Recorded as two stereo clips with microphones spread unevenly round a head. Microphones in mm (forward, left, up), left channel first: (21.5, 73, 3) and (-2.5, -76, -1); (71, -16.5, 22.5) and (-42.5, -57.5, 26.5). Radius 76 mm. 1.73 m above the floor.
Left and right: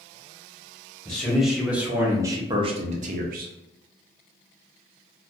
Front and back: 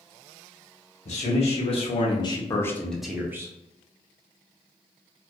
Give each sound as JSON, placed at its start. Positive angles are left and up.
{"t": 1.1, "sound": "a man speaking", "azimuth_deg": -5, "distance_m": 1.2}